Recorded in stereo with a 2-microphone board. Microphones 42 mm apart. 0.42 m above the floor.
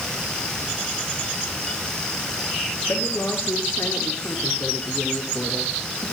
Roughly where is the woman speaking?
Left.